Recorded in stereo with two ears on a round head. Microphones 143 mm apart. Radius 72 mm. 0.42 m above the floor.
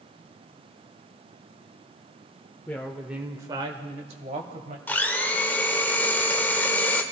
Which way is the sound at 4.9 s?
15° left (ahead or behind).